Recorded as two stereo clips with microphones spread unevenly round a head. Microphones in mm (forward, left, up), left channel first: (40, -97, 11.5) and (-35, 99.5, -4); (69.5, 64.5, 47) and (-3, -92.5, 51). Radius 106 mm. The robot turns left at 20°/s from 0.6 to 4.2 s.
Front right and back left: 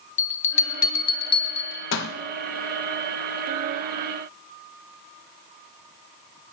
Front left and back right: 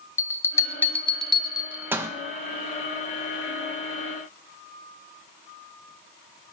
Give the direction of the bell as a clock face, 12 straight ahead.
12 o'clock.